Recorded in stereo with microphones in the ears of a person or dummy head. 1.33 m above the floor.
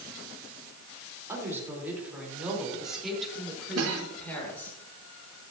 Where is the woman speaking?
20° right (ahead or behind), 4 m; by 4.8 s 10° left (ahead or behind), 4.5 m.